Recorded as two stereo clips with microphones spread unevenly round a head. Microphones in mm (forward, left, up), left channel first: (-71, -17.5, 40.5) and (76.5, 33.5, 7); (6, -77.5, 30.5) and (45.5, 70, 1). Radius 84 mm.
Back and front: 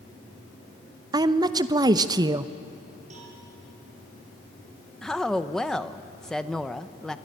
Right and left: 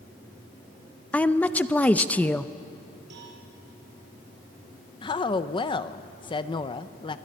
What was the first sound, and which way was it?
A woman speaking, 15° right.